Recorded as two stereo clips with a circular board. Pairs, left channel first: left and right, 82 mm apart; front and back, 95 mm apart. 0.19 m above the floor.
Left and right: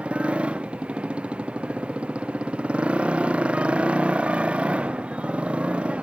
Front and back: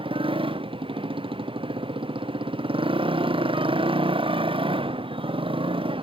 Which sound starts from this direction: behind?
A motorcycle, at 0.0 s.